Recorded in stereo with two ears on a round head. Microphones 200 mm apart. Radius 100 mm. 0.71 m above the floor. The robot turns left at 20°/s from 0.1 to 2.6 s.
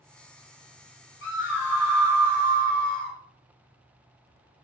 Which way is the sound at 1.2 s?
55° left (ahead or behind).